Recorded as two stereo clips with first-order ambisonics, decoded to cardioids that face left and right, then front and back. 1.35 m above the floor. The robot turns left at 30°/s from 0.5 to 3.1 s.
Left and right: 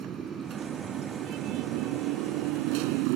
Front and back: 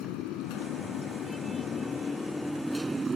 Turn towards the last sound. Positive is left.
turn(degrees=-105)